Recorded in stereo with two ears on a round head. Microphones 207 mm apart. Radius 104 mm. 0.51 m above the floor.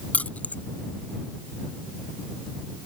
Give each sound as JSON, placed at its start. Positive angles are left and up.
{"t": 0.1, "sound": "keys jangling", "side_deg": 5}